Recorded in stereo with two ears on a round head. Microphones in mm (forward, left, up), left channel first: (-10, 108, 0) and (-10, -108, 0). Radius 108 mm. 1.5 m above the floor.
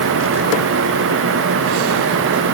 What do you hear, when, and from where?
Only background noise.